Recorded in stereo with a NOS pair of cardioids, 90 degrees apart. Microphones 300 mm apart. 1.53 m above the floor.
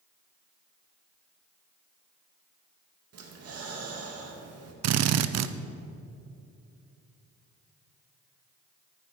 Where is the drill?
60° right, 0.6 m.